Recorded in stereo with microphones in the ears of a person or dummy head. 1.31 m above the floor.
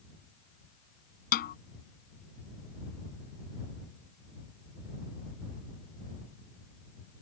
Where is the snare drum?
55° left (ahead or behind).